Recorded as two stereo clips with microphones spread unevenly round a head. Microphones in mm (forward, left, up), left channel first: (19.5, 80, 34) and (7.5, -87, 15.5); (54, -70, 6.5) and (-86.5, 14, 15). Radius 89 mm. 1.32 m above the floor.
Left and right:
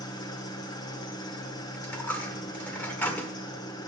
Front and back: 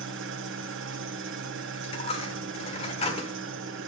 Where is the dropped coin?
15° left, 1.2 m.